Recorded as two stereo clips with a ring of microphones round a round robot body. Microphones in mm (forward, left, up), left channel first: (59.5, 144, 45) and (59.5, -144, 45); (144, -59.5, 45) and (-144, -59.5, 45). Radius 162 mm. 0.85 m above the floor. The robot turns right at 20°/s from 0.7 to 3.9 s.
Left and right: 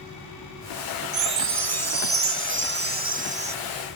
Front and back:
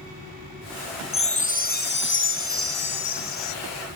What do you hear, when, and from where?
1.1 s a chime: 70° right; by 3.5 s 20° right